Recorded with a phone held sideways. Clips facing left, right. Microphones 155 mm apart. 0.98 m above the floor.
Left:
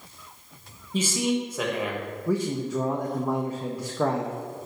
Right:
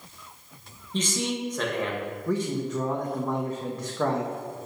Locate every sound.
0.9 s a man speaking: 10° left (ahead or behind), 1.0 m
2.3 s a man speaking: 10° left (ahead or behind), 0.6 m